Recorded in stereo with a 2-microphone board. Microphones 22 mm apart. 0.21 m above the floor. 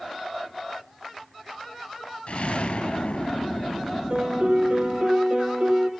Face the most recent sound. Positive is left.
turn(degrees=-70)  # may be behind; listen again after turning